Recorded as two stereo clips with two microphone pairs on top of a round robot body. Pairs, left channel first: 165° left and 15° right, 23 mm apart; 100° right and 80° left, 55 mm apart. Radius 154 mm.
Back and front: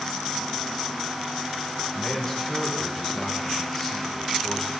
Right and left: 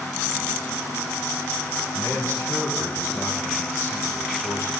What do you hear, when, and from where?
1.9 s a man speaking: 125° right, 5 m